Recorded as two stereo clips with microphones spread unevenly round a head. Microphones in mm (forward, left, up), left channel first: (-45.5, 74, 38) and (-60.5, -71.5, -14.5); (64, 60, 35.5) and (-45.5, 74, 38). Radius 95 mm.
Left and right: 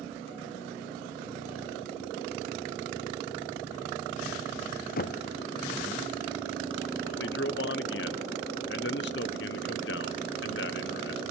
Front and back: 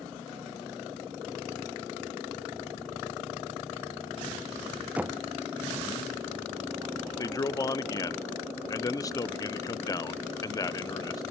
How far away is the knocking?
About 0.6 m.